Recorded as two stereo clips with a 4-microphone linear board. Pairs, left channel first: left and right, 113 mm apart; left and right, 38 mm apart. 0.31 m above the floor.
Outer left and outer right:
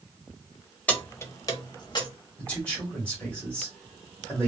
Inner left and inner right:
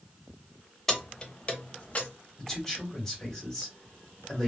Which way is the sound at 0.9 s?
10° left (ahead or behind).